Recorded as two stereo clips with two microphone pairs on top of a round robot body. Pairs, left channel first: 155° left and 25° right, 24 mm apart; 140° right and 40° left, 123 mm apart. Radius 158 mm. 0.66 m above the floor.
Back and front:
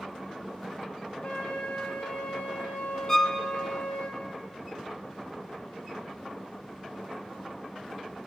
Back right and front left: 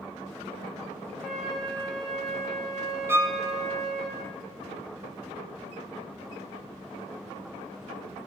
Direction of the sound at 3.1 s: 100° left.